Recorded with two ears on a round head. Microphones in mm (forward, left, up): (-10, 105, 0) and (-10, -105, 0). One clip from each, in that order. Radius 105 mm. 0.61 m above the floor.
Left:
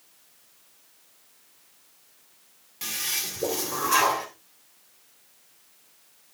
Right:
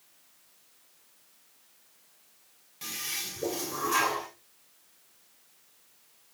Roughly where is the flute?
No flute in this recording.